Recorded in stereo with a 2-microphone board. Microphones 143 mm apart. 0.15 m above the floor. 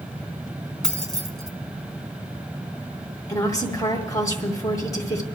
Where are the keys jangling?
5° left (ahead or behind), 0.9 m.